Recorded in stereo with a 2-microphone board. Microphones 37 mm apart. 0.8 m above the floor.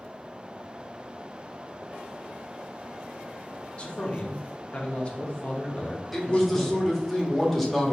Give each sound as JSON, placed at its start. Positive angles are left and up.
{"t": 3.8, "sound": "a man speaking", "side_deg": 30, "distance_m": 0.8}
{"t": 6.1, "sound": "a man speaking", "side_deg": 5, "distance_m": 1.1}